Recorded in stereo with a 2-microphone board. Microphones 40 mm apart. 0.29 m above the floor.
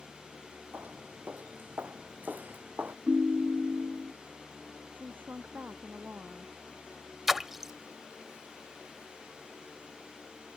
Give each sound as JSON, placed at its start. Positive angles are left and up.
{"t": 0.7, "sound": "footsteps", "side_deg": -55}
{"t": 3.1, "sound": "a ringtone", "side_deg": -40}
{"t": 4.9, "sound": "a woman speaking", "side_deg": -50}
{"t": 7.3, "sound": "a splash", "side_deg": -10}